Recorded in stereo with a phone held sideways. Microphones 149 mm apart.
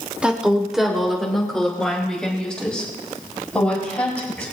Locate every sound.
0.2 s a woman speaking: 5° right (ahead or behind), 2.5 m; by 4.5 s 10° left (ahead or behind), 7 m